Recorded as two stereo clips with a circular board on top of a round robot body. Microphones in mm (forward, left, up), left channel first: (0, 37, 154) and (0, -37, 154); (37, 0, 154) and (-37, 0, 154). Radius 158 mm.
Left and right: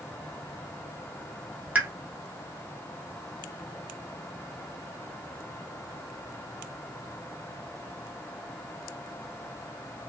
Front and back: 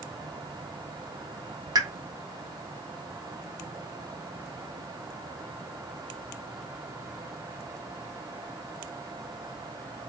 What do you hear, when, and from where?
1.8 s a pop: 155° right, 0.8 m